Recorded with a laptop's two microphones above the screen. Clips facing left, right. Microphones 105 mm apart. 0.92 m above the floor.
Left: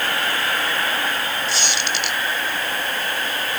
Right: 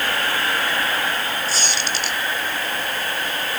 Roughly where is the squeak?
Right.